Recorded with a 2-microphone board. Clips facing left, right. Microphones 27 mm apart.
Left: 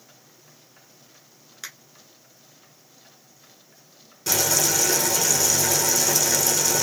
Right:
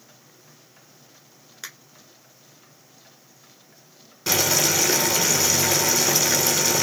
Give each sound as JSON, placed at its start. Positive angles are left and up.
{"t": 1.6, "sound": "a finger snap", "side_deg": -5, "distance_m": 1.2}
{"t": 4.3, "sound": "boiling", "side_deg": -25, "distance_m": 1.0}